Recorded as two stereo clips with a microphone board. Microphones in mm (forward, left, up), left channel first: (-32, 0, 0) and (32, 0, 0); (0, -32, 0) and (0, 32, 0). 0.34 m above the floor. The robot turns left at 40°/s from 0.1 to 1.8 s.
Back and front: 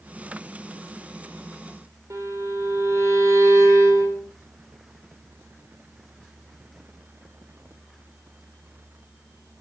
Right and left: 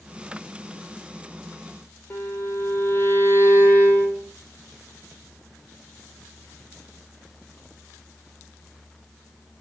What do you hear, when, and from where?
2.1 s a violin: 35° right, 4 m